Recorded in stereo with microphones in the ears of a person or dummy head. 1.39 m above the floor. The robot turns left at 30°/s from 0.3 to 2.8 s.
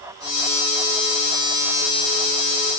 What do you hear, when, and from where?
Only background noise.